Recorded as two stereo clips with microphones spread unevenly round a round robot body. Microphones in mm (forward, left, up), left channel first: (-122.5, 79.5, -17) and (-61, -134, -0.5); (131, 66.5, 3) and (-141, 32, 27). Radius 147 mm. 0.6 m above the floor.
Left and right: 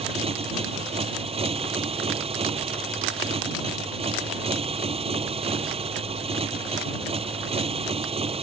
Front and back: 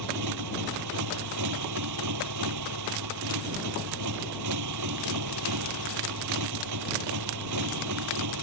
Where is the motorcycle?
140° right.